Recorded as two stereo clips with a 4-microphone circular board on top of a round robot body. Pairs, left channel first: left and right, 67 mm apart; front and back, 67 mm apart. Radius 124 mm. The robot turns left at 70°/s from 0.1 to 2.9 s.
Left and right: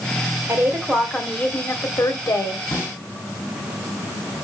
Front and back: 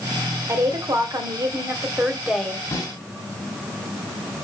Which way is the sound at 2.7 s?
45° left.